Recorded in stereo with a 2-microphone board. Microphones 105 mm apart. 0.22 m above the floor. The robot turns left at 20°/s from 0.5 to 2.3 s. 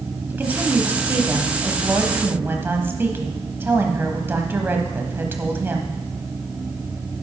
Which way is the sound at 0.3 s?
15° right (ahead or behind).